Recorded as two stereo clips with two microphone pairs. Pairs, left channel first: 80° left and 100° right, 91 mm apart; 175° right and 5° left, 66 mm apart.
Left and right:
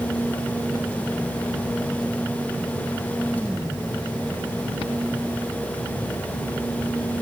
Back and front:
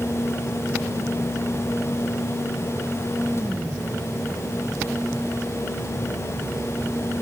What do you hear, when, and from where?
Only background noise.